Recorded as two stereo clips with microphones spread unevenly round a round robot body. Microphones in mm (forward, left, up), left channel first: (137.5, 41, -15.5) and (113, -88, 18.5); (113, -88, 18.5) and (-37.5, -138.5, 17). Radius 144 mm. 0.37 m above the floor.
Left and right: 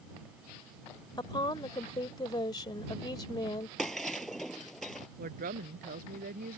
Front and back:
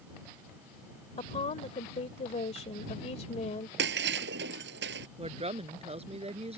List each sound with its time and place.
1.2 s a woman speaking: 55° left
3.8 s breaking glass: 170° left
5.2 s a woman speaking: 110° right